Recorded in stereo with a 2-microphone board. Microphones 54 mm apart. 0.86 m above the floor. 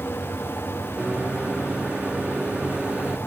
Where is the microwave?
20° right (ahead or behind).